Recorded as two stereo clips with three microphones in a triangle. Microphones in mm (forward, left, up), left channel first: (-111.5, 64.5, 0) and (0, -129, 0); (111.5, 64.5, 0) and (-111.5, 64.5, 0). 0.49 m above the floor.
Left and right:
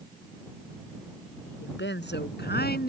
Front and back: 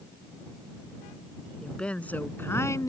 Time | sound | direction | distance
1.6 | a woman speaking | 85° left | ?